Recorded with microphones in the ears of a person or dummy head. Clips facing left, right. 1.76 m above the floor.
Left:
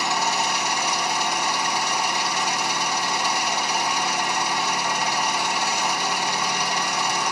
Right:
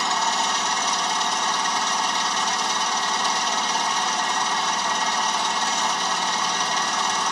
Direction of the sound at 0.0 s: 10° left (ahead or behind).